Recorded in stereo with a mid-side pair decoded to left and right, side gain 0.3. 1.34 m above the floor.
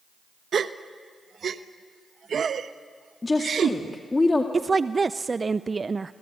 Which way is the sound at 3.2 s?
30° left.